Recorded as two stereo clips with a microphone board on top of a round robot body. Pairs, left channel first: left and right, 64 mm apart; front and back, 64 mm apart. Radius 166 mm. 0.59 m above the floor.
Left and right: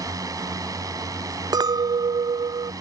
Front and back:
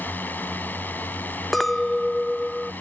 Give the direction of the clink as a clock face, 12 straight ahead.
3 o'clock.